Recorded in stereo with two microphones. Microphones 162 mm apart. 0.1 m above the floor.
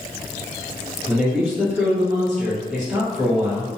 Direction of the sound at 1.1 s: 5° right (ahead or behind).